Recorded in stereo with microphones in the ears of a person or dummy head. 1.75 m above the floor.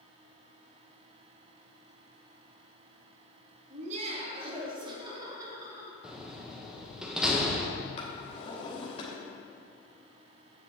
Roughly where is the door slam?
Centre.